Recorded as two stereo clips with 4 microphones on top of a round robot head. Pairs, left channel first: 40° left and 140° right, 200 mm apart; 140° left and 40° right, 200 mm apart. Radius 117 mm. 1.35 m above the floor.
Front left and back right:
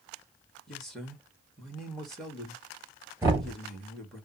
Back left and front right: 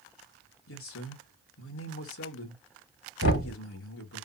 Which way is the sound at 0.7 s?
130° left.